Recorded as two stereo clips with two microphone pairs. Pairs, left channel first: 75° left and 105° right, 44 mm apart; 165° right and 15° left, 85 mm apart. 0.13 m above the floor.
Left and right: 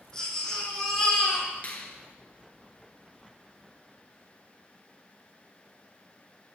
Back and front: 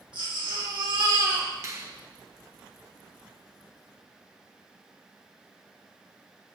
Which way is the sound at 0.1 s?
5° left.